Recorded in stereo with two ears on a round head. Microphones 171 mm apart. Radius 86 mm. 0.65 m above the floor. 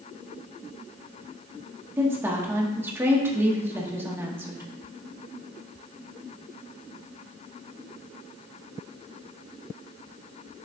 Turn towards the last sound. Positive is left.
turn(degrees=-15)  # may be behind; listen again after turning